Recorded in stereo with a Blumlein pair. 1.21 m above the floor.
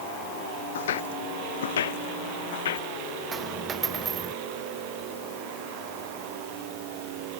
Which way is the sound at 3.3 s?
20° right.